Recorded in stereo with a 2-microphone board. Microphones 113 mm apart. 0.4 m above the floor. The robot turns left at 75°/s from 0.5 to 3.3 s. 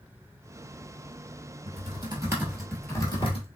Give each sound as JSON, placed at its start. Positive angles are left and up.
{"t": 1.7, "sound": "typing on a keyboard", "side_deg": -70, "distance_m": 1.2}